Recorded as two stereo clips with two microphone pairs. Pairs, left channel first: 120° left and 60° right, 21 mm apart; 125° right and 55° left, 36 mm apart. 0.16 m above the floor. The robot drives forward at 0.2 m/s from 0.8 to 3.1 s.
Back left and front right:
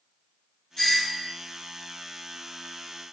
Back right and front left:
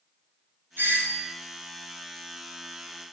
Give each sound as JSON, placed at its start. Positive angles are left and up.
{"t": 0.8, "sound": "a doorbell", "azimuth_deg": 65, "distance_m": 3.5}